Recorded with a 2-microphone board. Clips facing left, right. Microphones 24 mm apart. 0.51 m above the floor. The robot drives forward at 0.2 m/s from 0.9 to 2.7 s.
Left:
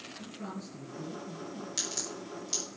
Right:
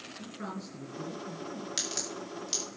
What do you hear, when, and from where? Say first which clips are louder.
0.2 s a man speaking: right 2 dB; 45° right (ahead or behind), 6 m
1.8 s a crack: right 1 dB; 30° right (ahead or behind), 7.5 m; by 2.8 s 25° right (ahead or behind), 7.5 m